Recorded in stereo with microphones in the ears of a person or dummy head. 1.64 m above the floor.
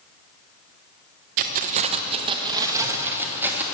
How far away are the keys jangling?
About 0.8 m.